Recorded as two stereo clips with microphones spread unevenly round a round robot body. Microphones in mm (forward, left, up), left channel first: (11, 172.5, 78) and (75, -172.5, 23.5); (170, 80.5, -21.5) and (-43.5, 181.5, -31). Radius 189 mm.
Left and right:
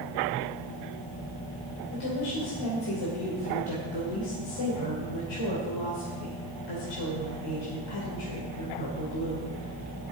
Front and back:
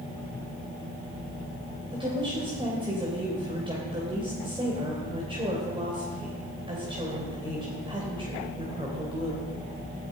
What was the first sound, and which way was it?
A woman speaking, 85° left.